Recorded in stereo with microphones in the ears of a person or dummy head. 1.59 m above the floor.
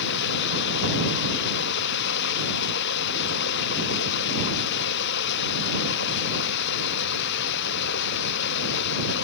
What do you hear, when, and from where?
0.0 s running water: 70° left (ahead or behind)